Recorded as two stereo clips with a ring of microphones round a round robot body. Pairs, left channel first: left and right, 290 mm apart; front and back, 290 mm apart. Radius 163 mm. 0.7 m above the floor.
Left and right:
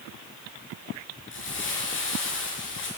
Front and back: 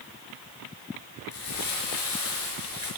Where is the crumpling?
40° left, 6 m.